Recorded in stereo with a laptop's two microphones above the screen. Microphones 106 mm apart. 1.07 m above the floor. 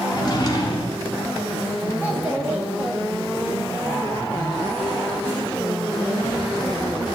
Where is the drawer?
40° left (ahead or behind), 1.1 m.